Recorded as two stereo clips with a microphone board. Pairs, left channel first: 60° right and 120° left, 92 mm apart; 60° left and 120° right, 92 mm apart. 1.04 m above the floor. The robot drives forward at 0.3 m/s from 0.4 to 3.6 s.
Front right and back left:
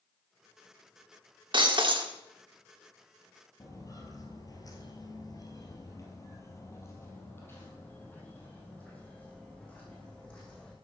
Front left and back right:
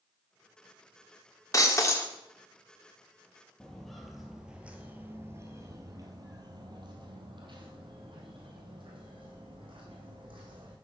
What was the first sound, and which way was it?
Breaking glass, 105° left.